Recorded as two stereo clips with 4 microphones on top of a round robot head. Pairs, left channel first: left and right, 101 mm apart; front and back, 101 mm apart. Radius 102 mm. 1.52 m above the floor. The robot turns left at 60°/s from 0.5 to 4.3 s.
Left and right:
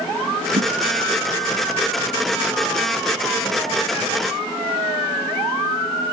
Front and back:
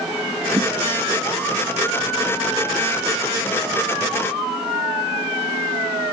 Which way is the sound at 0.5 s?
115° right.